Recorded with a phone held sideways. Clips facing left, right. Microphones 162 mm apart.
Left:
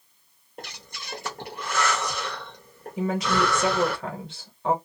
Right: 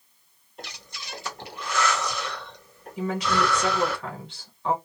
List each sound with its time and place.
0.6 s breathing: 50° left (ahead or behind), 1.0 m
3.0 s a woman speaking: 30° left (ahead or behind), 1.3 m